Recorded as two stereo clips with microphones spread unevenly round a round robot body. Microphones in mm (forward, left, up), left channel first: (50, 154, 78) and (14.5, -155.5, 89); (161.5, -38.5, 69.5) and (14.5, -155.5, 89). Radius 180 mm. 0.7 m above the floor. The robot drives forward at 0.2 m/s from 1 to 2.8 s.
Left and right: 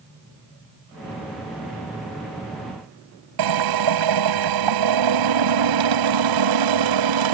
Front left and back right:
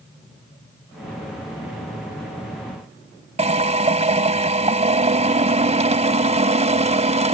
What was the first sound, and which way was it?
A drill, 85° right.